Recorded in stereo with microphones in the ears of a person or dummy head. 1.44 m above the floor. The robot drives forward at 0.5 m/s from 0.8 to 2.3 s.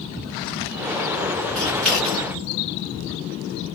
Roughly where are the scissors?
Centre.